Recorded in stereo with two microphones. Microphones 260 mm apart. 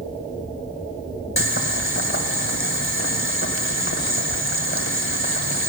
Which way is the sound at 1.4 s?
50° left (ahead or behind).